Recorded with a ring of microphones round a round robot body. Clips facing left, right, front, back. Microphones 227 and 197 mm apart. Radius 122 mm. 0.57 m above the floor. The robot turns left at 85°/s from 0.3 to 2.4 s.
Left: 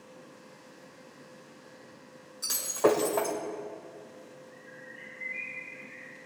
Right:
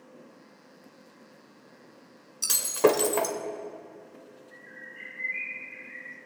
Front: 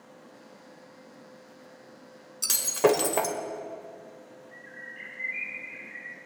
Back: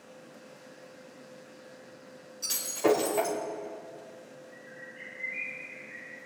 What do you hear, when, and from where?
2.4 s breaking glass: 40° right, 1.4 m
4.5 s a bird: 35° right, 1.6 m